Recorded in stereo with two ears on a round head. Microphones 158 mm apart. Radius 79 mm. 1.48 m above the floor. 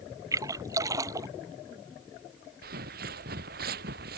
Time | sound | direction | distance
0.3 | a splash | 20° right (ahead or behind) | ?
2.6 | footsteps | 60° right (ahead or behind) | ?